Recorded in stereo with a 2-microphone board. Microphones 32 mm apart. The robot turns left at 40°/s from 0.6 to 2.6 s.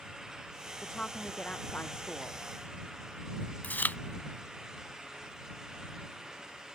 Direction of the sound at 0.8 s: 160° left.